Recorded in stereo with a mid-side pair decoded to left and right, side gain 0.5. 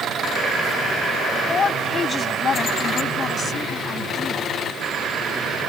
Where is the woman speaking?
40° left; by 4.5 s 45° left.